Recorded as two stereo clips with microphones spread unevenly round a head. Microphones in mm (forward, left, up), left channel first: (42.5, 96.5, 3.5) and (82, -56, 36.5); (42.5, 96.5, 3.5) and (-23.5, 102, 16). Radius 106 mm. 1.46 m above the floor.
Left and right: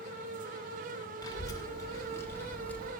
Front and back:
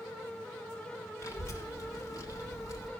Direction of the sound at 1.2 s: 35° left.